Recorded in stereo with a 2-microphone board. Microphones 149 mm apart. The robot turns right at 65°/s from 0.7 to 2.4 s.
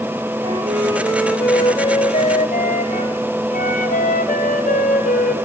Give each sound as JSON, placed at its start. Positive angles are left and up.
{"t": 0.4, "sound": "a flute", "azimuth_deg": -40, "distance_m": 1.4}